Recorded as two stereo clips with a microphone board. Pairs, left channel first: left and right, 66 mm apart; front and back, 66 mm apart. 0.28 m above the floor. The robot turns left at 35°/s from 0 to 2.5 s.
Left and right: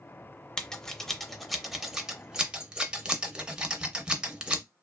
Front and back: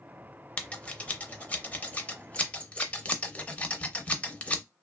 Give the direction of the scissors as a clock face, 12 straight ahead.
11 o'clock.